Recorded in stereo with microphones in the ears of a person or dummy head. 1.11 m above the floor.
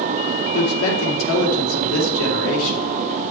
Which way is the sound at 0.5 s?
75° left (ahead or behind).